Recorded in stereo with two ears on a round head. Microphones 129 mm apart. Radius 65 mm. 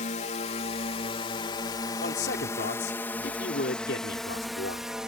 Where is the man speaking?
80° left.